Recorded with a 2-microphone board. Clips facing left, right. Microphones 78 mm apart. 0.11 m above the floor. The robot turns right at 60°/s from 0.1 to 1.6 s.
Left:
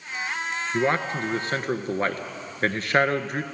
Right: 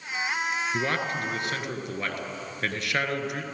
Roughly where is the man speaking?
Ahead left.